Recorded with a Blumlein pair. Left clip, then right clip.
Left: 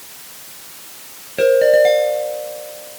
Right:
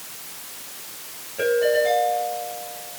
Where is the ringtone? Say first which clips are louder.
Left 8 dB; 55° left, 5 m.